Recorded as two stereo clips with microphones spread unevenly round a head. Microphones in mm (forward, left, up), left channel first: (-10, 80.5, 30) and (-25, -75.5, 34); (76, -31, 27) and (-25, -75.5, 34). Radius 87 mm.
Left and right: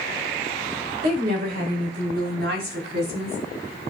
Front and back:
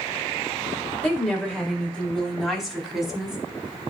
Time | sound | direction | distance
1.0 | a woman speaking | 55° right | 5 m